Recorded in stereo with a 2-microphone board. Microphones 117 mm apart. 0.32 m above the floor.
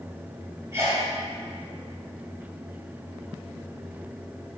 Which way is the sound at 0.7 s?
25° right (ahead or behind).